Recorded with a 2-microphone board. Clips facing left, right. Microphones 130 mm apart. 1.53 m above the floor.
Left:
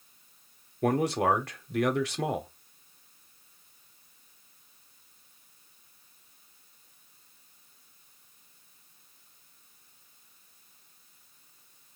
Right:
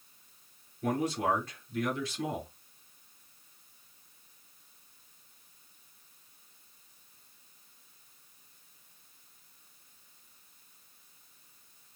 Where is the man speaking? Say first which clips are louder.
Left 5 dB; 85° left, 0.8 m.